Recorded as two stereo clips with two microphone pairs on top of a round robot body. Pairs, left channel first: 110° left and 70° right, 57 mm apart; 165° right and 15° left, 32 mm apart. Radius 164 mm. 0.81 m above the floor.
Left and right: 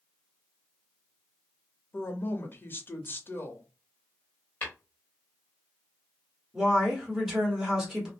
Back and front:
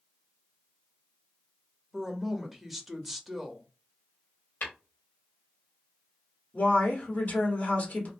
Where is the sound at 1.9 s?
115° left, 1.0 m.